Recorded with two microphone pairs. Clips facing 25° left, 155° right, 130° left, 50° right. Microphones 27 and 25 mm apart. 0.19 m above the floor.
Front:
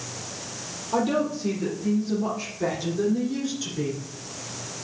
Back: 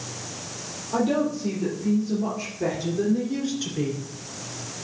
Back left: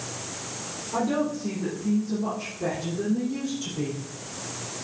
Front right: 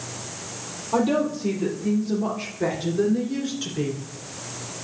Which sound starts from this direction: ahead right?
A woman speaking, at 0.9 s.